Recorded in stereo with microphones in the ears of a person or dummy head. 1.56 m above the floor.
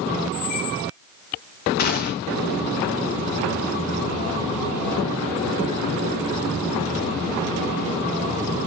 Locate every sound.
0.3 s a squeak: 55° left (ahead or behind), 1.1 m
1.8 s a gunshot: 45° left (ahead or behind), 0.6 m